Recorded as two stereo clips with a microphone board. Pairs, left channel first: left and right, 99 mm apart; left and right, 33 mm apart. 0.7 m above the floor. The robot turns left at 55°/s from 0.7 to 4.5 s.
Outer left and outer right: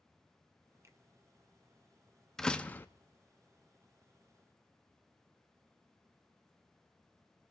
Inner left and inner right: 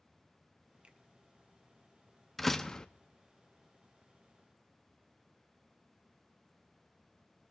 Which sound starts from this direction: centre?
A door slam, at 2.4 s.